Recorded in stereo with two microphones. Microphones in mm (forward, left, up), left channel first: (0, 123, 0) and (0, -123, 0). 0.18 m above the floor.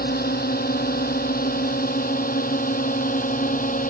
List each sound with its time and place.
0.0 s a drone: 35° left (ahead or behind); by 3.9 s 30° left (ahead or behind)